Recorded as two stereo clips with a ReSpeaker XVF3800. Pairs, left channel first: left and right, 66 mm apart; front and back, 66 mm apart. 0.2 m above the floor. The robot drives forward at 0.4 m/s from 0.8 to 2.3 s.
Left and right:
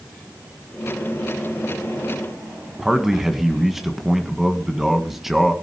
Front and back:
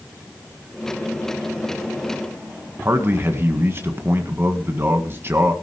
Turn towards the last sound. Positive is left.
turn(degrees=-175)